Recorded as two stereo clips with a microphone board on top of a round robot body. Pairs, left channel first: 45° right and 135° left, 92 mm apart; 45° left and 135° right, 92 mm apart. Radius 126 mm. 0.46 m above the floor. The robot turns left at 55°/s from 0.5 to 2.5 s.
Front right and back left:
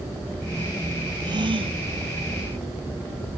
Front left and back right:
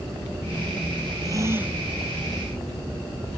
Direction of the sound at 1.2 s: Straight behind.